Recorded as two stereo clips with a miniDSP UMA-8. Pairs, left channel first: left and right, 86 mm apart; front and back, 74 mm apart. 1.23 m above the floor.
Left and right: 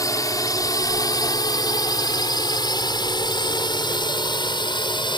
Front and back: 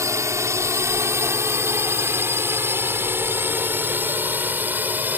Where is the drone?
135° left; by 5.2 s 115° left.